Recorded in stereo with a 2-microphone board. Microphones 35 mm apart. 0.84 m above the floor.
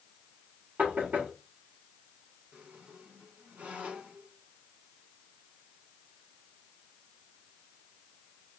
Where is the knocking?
55° right (ahead or behind), 1.7 m.